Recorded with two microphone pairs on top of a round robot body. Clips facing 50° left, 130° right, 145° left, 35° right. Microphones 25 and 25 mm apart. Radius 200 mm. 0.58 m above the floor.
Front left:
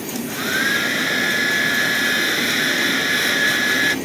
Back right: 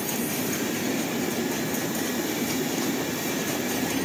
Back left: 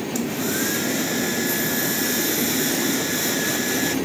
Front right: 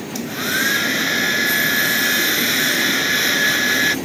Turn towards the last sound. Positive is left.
turn(degrees=15)